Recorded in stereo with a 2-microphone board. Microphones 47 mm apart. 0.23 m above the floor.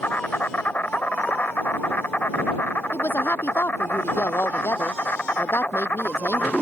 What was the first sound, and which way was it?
An insect, 40° left (ahead or behind).